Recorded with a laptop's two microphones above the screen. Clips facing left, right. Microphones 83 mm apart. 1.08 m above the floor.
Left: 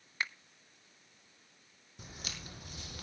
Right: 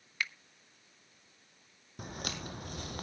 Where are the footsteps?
55° right (ahead or behind), 1.9 m; by 3.0 s 45° right (ahead or behind), 1.6 m.